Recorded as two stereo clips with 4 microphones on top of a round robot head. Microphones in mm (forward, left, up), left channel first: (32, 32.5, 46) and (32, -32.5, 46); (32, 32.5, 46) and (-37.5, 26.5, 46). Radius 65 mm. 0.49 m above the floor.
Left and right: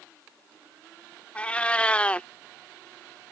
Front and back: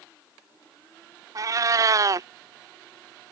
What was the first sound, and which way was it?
A cat meowing, 160° left.